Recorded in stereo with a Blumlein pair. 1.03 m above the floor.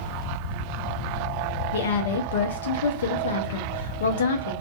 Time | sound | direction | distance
1.7 | a woman speaking | 60° left | 0.5 m